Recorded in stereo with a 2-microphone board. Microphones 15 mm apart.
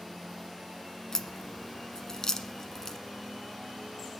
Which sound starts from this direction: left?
A crack, at 1.1 s.